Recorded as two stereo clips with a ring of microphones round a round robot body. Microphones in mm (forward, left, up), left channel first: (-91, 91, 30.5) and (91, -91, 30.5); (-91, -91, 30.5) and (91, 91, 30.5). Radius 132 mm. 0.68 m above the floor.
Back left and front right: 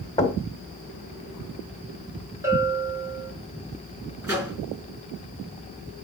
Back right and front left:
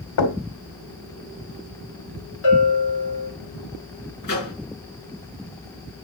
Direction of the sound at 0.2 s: 150° right.